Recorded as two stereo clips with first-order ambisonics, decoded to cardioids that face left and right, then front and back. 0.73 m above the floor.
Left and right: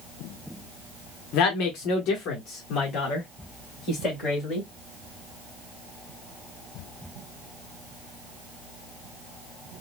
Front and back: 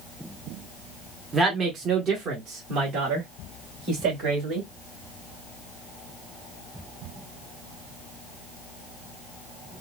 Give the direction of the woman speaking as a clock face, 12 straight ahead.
8 o'clock.